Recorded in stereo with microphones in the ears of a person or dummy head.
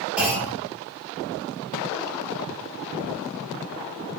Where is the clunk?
Centre (ahead or behind), 2.5 m.